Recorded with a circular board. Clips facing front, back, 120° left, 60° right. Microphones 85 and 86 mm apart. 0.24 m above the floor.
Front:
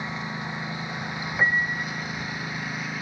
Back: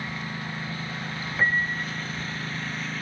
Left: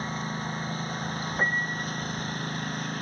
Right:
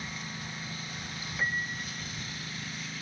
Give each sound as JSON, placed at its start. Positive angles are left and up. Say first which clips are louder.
{"t": 0.0, "sound": "a lawn mower", "louder": "front 2 dB, left 8 dB", "azimuth_deg": 70}
{"t": 1.4, "sound": "a piano", "louder": "front 1 dB, left 4 dB", "azimuth_deg": 75}